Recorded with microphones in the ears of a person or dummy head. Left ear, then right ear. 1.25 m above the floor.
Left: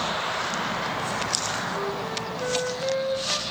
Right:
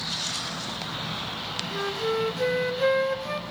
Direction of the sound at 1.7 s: 80° right.